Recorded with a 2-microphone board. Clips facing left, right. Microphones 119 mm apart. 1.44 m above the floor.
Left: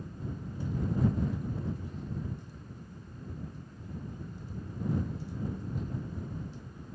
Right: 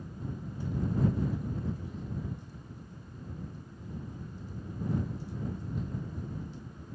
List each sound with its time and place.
Only background noise.